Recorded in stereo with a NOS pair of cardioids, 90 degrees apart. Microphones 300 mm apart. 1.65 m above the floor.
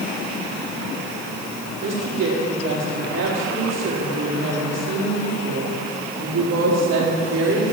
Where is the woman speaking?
55° right, 4 m.